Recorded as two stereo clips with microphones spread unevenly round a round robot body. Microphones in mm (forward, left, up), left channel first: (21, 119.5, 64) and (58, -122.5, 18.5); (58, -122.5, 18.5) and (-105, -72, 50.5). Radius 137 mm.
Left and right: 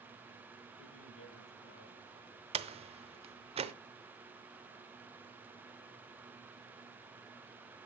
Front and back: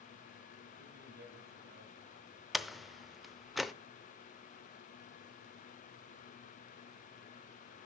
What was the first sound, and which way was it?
A man speaking, 125° left.